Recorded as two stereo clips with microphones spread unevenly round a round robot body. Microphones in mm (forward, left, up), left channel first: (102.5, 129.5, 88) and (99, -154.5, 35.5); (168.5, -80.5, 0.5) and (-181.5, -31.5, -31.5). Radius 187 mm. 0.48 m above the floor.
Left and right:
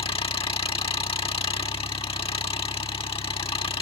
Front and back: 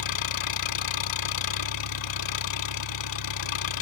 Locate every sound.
0.0 s an engine running: 15° left